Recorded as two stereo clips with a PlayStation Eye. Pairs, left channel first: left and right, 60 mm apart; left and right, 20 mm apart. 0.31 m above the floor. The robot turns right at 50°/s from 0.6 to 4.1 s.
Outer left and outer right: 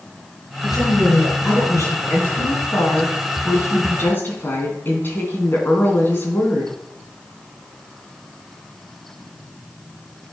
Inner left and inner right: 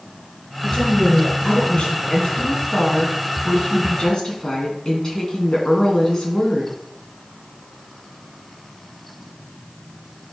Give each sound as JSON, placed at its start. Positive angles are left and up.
{"t": 0.6, "sound": "a woman speaking", "azimuth_deg": 55, "distance_m": 4.5}
{"t": 2.1, "sound": "a woman speaking", "azimuth_deg": 40, "distance_m": 2.5}